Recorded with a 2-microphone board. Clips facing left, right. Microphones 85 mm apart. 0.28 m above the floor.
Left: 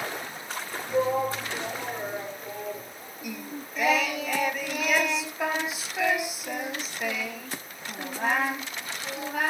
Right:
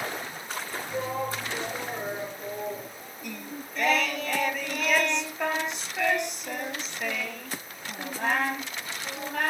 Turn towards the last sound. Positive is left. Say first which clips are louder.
# left 2 dB
turn(degrees=5)  # may be behind; listen again after turning